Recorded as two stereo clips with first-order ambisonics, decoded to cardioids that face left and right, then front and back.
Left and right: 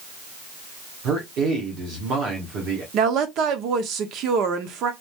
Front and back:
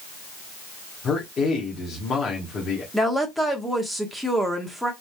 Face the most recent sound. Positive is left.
turn(degrees=-90)